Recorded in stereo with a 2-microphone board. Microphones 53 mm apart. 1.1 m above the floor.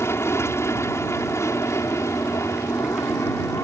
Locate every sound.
0.0 s an aircraft: 55° left (ahead or behind); by 3.6 s 65° left (ahead or behind)